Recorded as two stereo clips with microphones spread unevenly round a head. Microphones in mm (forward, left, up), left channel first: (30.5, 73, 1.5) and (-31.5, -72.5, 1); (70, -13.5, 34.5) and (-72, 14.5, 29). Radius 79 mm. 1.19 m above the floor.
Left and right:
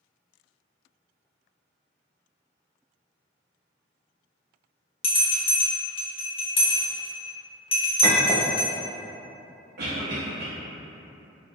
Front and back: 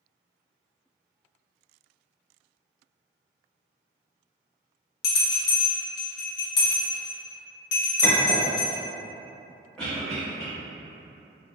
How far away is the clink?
About 0.6 m.